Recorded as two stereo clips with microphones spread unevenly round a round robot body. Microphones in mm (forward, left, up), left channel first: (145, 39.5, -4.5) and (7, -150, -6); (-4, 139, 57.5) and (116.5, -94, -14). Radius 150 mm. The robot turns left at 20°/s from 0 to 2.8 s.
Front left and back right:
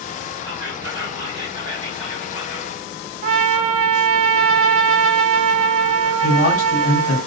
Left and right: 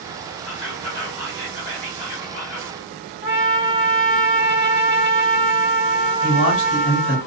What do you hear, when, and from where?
0.4 s whispering: 140° right, 1.9 m; by 2.8 s 175° left, 1.9 m
3.2 s a trumpet: 135° right, 0.6 m
6.2 s a man speaking: 100° left, 1.6 m